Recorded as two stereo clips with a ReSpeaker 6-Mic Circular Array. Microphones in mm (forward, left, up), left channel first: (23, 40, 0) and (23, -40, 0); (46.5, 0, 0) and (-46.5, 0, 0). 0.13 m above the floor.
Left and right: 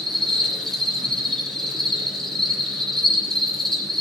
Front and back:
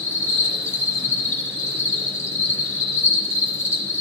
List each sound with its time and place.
0.0 s an insect: 10° left, 2.5 m